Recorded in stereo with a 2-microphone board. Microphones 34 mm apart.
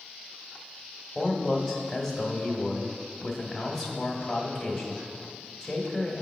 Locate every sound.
1.1 s a man speaking: 5° left (ahead or behind), 1.1 m